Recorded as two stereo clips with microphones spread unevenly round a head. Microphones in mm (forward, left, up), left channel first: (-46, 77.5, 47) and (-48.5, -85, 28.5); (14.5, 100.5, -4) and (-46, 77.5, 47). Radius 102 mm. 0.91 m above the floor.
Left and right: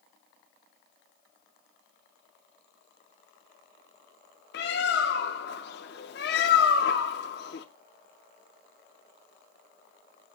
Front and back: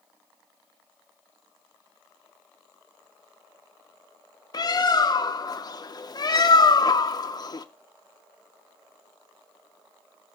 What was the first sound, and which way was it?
A bird, 75° left.